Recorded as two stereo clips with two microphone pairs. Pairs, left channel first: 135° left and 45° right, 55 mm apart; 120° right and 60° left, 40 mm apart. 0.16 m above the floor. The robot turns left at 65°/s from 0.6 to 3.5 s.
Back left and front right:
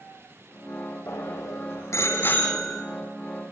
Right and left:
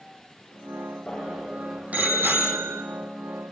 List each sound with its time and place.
1.1 s a bicycle bell: 165° left, 5 m; by 2.8 s 50° left, 5 m